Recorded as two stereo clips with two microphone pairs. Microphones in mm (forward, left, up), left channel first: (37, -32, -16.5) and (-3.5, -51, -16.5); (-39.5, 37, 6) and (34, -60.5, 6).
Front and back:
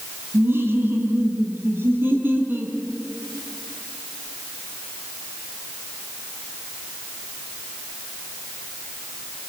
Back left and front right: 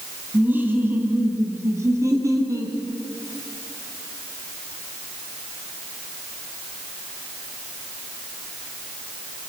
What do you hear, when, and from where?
0.3 s laughter: 130° right, 3 m; by 2.8 s 115° right, 4.5 m